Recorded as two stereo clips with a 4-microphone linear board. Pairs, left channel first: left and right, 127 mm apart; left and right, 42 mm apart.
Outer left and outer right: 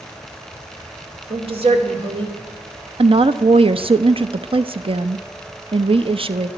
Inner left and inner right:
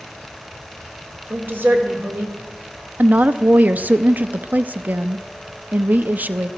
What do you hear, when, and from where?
1.3 s a woman speaking: 55° right (ahead or behind), 2 m
3.0 s a woman speaking: 50° right (ahead or behind), 0.5 m